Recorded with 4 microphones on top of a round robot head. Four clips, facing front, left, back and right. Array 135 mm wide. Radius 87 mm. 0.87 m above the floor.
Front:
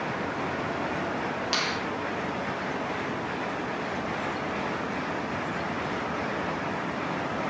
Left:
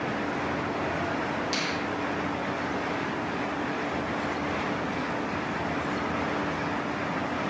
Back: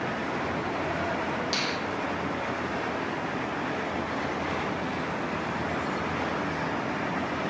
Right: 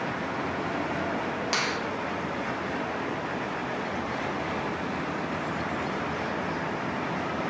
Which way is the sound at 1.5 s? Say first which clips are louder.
Right 1 dB, front 1 dB; 50° right.